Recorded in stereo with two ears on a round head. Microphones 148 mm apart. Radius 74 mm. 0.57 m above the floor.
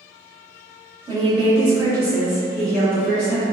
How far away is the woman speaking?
About 1.5 m.